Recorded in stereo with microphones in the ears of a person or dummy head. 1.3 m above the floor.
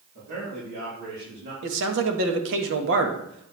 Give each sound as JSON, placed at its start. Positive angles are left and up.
{"t": 0.1, "sound": "a man speaking", "side_deg": -65, "distance_m": 4.5}
{"t": 1.6, "sound": "a man speaking", "side_deg": -70, "distance_m": 1.7}